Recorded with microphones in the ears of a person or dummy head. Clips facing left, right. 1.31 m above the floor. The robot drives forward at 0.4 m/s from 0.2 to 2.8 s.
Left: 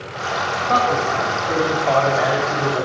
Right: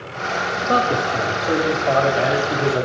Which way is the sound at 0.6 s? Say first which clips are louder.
Even; 35° right (ahead or behind).